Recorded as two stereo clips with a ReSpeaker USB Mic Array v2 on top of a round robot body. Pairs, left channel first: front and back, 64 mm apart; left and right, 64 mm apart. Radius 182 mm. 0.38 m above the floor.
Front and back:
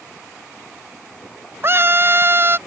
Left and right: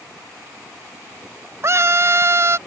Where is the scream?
130° right.